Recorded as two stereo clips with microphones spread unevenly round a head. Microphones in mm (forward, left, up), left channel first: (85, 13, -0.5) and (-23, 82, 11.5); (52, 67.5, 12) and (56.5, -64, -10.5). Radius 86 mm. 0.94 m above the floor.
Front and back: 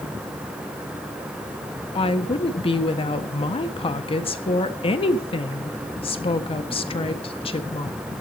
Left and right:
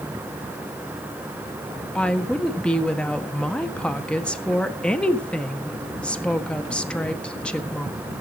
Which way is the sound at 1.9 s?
5° left.